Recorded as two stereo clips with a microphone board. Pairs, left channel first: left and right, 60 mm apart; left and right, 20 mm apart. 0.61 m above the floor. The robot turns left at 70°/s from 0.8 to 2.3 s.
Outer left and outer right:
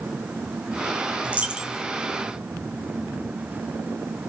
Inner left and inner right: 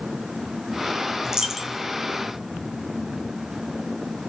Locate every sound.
1.2 s a dropped coin: 130° right, 0.7 m; by 1.8 s 175° right, 0.7 m